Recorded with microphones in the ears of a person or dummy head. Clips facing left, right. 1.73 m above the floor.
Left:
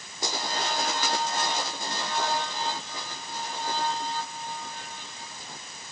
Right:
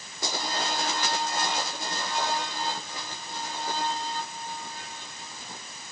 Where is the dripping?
I don't hear dripping.